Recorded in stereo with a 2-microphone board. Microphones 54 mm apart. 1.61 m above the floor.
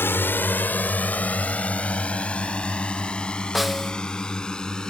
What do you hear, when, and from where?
0.0 s a drone: 45° left (ahead or behind); by 4.9 s 15° left (ahead or behind)
3.5 s a snare drum: centre (ahead or behind)